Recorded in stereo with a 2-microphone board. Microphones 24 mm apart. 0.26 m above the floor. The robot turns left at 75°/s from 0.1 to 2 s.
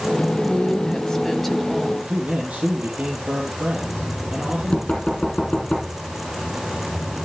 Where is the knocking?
40° left (ahead or behind), 5 m.